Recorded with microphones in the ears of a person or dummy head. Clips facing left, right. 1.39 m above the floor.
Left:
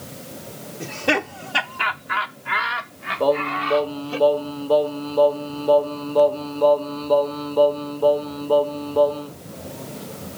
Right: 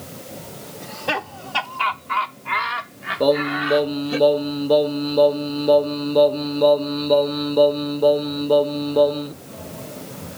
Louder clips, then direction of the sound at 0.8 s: Left 5 dB; 35° left (ahead or behind).